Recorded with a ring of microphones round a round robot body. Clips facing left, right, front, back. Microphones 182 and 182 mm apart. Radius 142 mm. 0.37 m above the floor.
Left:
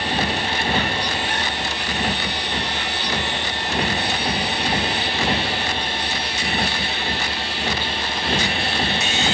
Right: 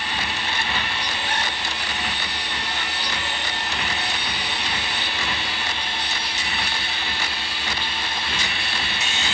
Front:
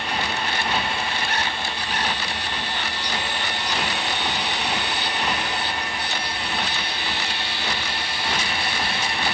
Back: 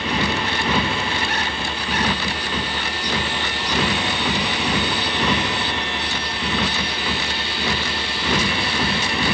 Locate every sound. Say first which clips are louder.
0.0 s a motorcycle: left 7 dB, back 5 dB; 155° left